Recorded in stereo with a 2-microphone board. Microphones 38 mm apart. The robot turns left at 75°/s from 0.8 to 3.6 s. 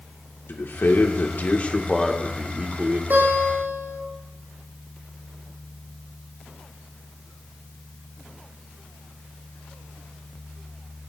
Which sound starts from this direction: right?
A guitar, at 3.1 s.